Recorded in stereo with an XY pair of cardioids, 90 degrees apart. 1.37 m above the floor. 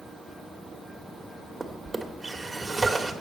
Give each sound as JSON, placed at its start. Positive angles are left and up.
{"t": 1.6, "sound": "a drawer", "azimuth_deg": -20, "distance_m": 2.0}